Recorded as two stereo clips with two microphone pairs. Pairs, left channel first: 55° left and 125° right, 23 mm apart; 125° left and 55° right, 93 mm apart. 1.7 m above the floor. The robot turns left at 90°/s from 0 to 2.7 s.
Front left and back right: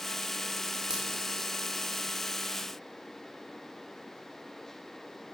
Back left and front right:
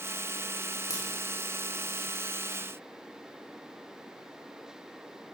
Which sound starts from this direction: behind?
A crack, at 0.9 s.